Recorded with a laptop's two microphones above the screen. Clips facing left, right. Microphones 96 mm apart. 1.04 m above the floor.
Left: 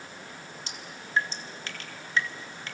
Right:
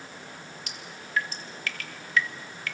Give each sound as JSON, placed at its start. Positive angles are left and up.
{"t": 0.7, "sound": "dripping", "side_deg": 30, "distance_m": 1.5}